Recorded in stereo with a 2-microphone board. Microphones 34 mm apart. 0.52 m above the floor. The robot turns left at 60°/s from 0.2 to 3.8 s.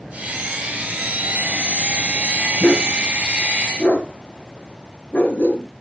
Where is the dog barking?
55° left (ahead or behind), 2 m.